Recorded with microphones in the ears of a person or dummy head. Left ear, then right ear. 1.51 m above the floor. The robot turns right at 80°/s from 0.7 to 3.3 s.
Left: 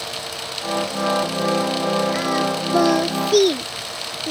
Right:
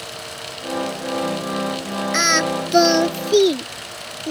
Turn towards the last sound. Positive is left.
turn(degrees=5)  # may be behind; listen again after turning